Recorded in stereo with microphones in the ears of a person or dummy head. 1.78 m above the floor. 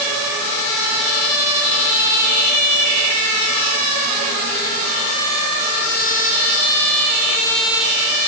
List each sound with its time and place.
Only background noise.